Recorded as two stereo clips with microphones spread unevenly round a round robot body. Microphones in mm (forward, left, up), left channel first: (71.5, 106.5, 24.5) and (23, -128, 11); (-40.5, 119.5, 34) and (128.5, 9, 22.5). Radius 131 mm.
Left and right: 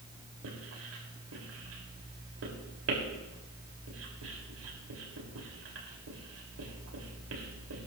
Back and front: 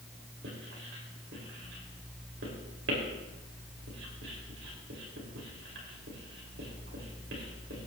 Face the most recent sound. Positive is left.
turn(degrees=-80)